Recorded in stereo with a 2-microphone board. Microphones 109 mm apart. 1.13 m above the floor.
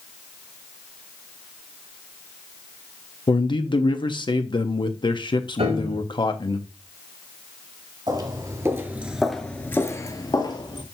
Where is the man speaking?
45° left (ahead or behind), 0.8 m.